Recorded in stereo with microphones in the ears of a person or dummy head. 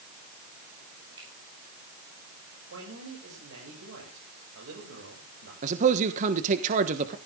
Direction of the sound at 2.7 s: 85° right.